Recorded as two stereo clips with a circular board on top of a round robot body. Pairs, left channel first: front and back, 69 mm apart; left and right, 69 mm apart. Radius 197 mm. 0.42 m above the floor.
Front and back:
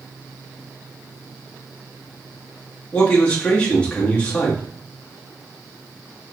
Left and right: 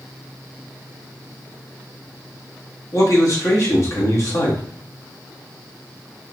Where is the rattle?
No rattle in this recording.